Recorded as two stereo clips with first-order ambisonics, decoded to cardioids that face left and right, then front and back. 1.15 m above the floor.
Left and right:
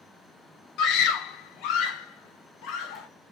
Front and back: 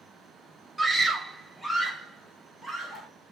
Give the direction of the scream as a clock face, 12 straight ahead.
9 o'clock.